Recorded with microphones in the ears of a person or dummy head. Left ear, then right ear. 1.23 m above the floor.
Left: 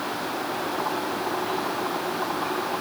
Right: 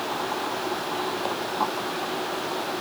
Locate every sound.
Only background noise.